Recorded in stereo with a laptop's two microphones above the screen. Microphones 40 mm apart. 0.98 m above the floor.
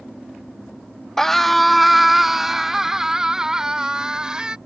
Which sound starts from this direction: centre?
A scream, at 1.2 s.